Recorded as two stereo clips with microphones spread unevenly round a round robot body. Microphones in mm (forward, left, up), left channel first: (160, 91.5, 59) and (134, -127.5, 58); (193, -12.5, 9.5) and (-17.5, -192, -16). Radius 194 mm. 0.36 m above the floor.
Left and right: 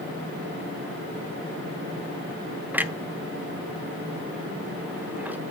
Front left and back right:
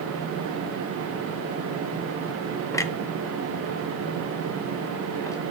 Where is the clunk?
30° right, 0.8 m.